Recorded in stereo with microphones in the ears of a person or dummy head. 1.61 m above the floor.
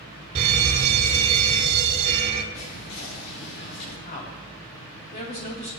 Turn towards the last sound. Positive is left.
turn(degrees=40)  # may be behind; listen again after turning